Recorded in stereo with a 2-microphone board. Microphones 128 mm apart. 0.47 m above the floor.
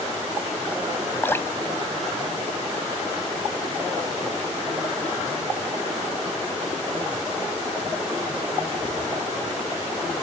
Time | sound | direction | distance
1.2 | dripping | 20° left (ahead or behind) | ?